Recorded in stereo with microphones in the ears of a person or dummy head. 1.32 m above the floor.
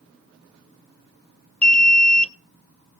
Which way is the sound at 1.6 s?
5° left (ahead or behind).